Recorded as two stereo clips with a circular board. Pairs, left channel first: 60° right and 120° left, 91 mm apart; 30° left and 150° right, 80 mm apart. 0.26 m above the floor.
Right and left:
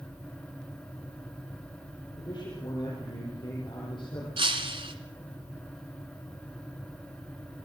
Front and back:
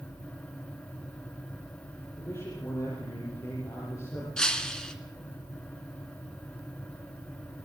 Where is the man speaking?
25° right, 9 m.